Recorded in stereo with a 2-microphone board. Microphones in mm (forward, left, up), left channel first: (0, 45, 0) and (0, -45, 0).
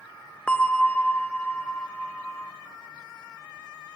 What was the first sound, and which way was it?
A bell, 10° left (ahead or behind).